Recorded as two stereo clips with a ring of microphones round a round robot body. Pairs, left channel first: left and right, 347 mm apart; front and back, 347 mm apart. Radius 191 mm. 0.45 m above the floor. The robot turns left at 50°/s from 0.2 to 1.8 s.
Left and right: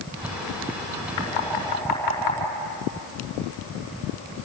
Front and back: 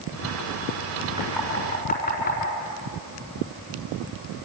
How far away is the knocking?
About 4 m.